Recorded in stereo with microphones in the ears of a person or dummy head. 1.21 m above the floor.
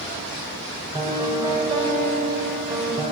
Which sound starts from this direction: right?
A piano, at 0.9 s.